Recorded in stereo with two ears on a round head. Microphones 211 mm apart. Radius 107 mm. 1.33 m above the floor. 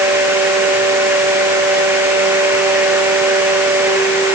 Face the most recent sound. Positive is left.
No sound to turn to.